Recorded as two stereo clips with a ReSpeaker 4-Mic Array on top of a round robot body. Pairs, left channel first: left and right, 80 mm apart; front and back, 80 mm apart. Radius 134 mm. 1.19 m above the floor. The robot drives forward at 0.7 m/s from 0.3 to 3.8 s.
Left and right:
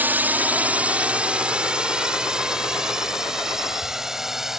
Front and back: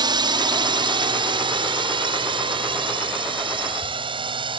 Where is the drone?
155° right; by 4.6 s 175° right.